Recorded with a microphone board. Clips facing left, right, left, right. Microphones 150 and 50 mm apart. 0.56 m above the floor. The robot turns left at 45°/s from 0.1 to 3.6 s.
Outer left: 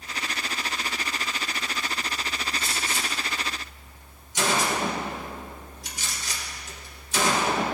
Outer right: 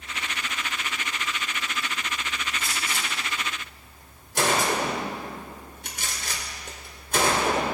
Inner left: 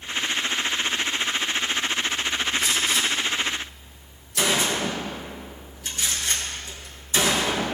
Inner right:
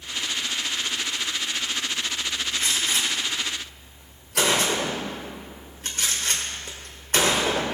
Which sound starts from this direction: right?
A gunshot, at 2.6 s.